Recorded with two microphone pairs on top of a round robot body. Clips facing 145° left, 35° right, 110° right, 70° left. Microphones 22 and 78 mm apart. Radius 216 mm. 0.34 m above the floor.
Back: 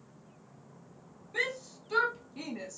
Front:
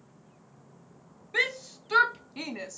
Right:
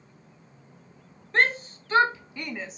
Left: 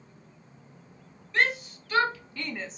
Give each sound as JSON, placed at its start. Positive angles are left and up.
{"t": 1.3, "sound": "a shout", "azimuth_deg": -60, "distance_m": 1.6}